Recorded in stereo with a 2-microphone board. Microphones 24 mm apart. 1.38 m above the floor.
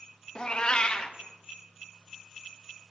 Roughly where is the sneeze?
No sneeze in this recording.